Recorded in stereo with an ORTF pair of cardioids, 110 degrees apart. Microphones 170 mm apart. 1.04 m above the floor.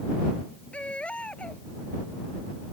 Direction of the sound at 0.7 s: 5° left.